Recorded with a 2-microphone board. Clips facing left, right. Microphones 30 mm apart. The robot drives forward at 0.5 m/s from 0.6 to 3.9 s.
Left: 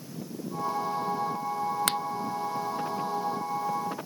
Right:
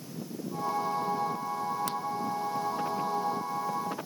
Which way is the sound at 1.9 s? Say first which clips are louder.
Left 5 dB; 80° left.